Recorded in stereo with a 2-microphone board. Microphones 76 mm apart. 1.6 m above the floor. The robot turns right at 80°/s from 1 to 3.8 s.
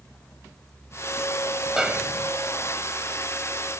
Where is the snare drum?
175° right; by 2.3 s 130° right.